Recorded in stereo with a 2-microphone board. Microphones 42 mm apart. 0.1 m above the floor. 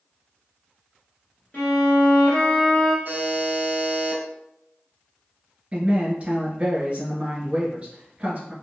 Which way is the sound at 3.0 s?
45° right (ahead or behind).